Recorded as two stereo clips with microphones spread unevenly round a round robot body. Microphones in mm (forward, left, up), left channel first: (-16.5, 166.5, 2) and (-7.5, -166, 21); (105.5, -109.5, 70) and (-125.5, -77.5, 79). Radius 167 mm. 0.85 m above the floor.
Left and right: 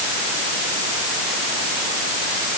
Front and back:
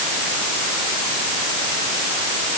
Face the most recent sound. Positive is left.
No sound to turn to.